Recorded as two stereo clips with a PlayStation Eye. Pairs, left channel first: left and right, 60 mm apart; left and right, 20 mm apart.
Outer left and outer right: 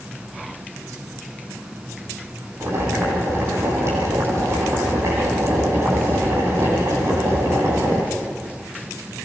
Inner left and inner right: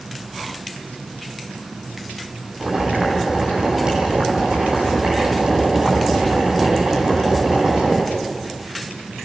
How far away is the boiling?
About 9 m.